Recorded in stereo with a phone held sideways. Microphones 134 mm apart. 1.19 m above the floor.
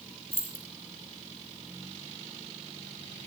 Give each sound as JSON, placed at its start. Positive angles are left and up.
{"t": 0.3, "sound": "keys jangling", "side_deg": 50, "distance_m": 4.0}